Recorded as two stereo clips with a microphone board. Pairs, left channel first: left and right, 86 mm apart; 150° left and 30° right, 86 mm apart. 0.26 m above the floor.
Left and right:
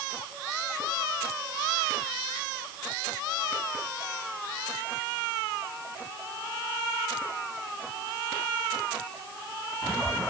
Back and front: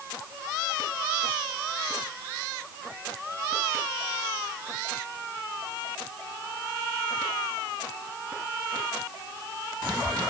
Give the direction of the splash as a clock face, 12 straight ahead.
I don't hear a splash.